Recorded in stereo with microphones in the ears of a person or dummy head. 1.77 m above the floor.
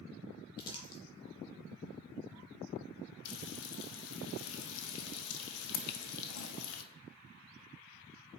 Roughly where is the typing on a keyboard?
Left.